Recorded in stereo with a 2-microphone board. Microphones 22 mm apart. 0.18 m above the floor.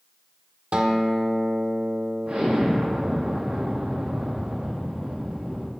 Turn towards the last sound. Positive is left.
turn(degrees=-80)